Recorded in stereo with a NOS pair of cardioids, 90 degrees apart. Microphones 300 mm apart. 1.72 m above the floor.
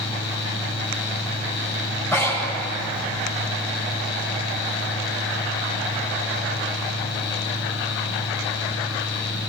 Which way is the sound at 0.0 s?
55° left.